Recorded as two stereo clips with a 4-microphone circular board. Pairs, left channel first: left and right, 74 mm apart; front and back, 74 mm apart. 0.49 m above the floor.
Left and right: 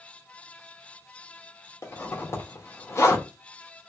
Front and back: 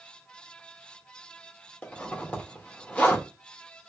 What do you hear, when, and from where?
1.8 s a zipper: 60° left, 1.0 m